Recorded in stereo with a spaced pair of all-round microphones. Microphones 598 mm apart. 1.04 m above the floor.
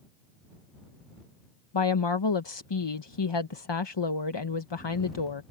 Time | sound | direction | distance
1.7 | a woman speaking | 45° left (ahead or behind) | ?